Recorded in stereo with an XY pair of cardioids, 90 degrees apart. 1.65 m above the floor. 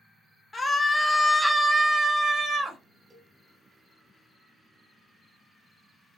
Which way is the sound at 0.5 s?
30° left.